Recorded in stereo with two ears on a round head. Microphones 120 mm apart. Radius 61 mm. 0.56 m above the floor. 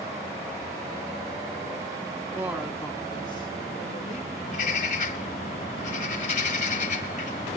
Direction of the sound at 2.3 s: 20° right (ahead or behind).